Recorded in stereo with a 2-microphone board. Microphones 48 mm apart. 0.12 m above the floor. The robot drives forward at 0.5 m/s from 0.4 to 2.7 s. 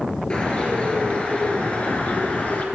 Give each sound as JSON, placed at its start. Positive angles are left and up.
{"t": 0.3, "sound": "a bird", "side_deg": 25, "distance_m": 2.0}